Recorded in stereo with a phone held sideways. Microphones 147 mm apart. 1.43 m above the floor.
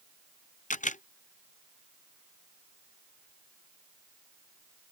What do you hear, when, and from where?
0.7 s a camera shutter: 55° left (ahead or behind)